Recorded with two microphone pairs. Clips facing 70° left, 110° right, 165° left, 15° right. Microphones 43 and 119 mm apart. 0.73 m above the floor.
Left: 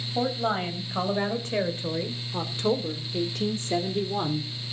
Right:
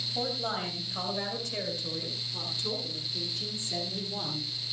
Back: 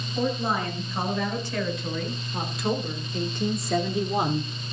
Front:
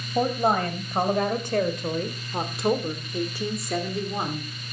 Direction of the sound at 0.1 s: 10° left.